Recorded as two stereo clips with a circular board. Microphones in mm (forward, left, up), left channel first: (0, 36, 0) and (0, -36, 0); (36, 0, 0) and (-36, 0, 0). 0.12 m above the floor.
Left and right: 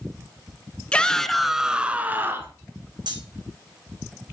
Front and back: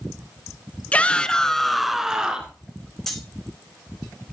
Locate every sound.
0.9 s a shout: 35° left, 1.5 m; by 2.6 s 115° right, 1.7 m
3.1 s cutlery clinking: 85° right, 4.5 m